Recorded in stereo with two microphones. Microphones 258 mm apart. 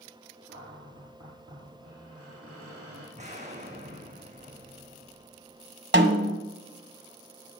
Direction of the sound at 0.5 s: 60° right (ahead or behind).